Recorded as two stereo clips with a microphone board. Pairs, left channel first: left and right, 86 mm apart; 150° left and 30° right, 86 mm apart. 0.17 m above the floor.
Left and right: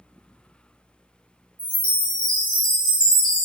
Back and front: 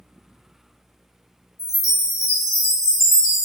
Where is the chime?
100° left, 2.5 m.